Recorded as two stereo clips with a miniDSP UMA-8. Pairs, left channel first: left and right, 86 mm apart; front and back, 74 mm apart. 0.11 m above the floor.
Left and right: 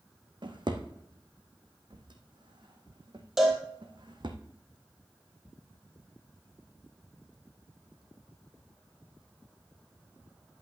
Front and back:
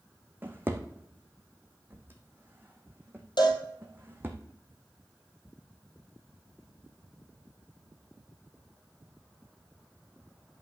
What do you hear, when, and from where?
0.4 s a drawer: 115° right, 1.6 m
3.4 s a cowbell: 5° right, 2.5 m